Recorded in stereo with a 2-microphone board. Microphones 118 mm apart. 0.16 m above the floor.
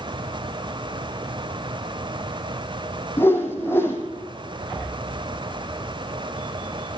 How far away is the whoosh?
About 2.5 m.